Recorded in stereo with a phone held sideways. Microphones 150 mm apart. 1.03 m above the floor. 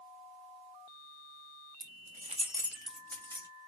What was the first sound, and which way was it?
Keys jangling, 85° right.